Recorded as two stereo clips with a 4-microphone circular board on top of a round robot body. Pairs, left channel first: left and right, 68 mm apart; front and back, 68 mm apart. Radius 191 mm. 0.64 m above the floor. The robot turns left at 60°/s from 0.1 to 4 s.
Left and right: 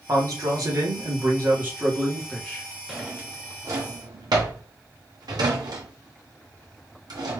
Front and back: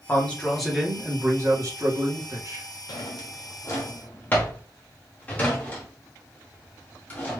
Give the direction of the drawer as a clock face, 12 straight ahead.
12 o'clock.